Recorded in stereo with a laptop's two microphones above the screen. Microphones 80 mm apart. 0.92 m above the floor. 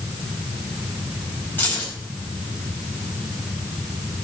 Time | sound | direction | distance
1.6 | keys jangling | 20° left (ahead or behind) | 4.5 m